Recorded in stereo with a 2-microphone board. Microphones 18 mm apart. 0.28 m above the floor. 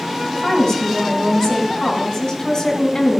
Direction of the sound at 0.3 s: 45° left (ahead or behind).